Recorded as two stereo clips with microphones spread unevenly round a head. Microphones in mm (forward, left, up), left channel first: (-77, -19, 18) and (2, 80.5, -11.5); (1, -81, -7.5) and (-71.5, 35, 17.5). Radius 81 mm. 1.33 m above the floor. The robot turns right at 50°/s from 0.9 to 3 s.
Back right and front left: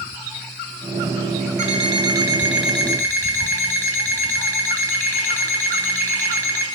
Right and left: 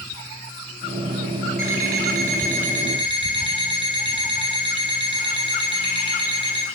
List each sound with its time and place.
1.6 s an alarm clock: 95° left, 3 m; by 6.7 s 165° left, 3 m